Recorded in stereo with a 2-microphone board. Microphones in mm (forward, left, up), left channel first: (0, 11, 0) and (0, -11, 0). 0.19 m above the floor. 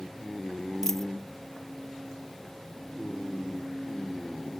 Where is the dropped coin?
15° left (ahead or behind).